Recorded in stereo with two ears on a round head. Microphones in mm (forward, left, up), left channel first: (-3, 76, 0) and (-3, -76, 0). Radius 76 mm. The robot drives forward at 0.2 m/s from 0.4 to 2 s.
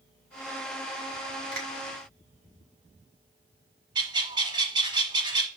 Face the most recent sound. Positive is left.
turn(degrees=-30)  # may be behind; listen again after turning